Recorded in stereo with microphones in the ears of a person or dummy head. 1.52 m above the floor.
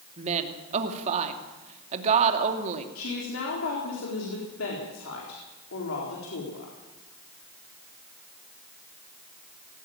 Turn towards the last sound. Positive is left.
turn(degrees=85)